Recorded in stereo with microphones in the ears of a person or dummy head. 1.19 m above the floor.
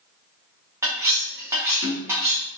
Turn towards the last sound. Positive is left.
turn(degrees=-10)  # may be behind; listen again after turning